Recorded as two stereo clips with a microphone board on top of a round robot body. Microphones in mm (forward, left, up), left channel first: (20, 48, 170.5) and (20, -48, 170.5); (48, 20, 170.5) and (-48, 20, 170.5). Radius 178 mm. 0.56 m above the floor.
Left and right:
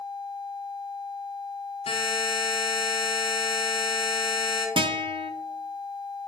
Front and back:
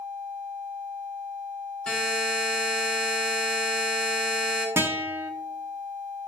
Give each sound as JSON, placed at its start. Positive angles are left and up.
{"t": 1.9, "sound": "a buzzer", "azimuth_deg": 80, "distance_m": 3.5}
{"t": 4.8, "sound": "a guitar", "azimuth_deg": -115, "distance_m": 0.9}